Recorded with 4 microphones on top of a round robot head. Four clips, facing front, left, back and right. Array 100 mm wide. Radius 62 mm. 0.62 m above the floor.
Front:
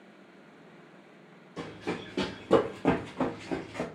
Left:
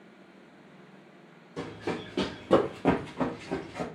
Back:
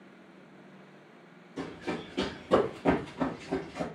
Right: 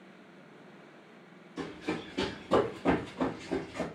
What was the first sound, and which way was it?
Running footsteps, 65° left.